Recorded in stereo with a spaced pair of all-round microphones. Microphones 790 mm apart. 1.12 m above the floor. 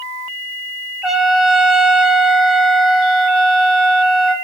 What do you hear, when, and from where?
1.0 s a trumpet: centre (ahead or behind), 1.3 m